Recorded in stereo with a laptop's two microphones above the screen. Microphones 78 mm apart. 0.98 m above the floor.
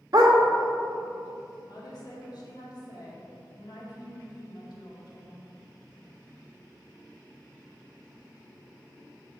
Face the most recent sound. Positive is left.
turn(degrees=55)  # may be behind; listen again after turning